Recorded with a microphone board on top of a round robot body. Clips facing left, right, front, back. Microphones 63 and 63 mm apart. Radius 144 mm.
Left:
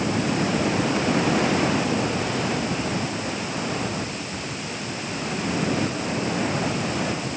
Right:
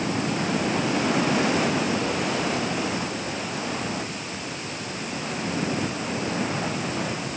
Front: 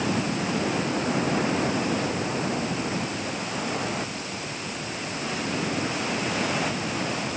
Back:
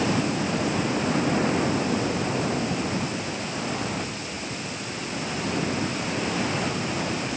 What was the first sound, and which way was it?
Only background noise.